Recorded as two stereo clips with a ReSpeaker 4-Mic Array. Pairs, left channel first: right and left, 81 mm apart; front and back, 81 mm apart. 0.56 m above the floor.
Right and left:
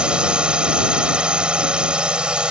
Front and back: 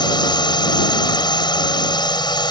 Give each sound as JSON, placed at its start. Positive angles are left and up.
{"t": 0.0, "sound": "a drone", "azimuth_deg": 10}